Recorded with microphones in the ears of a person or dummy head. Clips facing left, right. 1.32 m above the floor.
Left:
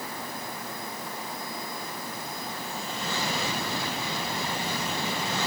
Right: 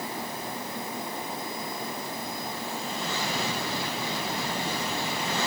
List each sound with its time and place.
Only background noise.